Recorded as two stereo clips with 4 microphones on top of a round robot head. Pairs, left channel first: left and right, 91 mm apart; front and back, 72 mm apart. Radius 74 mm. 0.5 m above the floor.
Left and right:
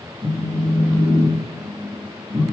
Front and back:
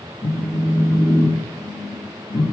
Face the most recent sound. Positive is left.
turn(degrees=-10)